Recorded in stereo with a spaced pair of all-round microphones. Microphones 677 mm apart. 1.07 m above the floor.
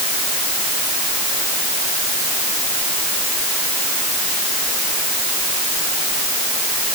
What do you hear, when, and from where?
Only background noise.